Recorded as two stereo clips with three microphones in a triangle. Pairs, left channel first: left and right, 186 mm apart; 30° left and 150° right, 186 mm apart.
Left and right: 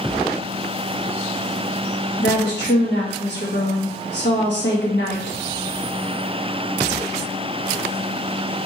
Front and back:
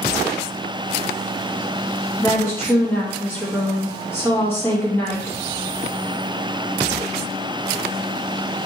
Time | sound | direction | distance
2.2 | a woman speaking | 105° left | 1.4 m